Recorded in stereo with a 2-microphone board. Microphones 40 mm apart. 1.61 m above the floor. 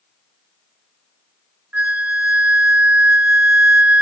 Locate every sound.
1.7 s a flute: 35° right (ahead or behind), 0.7 m